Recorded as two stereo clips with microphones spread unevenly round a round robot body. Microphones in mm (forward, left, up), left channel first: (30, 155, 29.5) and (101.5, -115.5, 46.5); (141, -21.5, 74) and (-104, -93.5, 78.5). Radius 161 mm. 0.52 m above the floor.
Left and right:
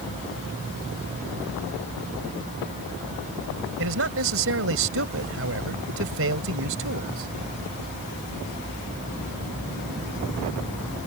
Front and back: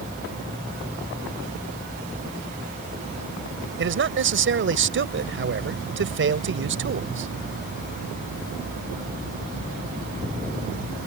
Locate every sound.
3.8 s a man speaking: 125° right